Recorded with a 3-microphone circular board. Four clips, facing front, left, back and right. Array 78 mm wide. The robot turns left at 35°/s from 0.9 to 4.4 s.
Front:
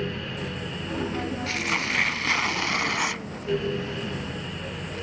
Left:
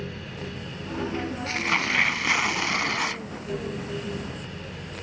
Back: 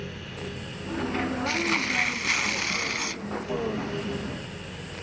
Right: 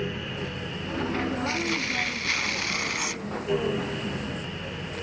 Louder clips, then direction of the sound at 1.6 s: Left 3 dB, even; 85° left.